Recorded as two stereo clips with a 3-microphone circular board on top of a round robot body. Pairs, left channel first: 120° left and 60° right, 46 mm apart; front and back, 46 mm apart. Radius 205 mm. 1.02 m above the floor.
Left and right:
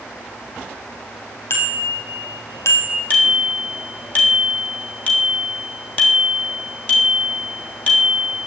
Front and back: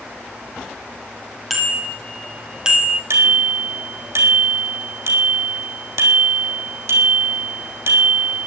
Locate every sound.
1.5 s a bicycle bell: 90° left, 2.5 m; by 3.0 s 110° left, 1.9 m
3.1 s a bicycle bell: straight behind, 3 m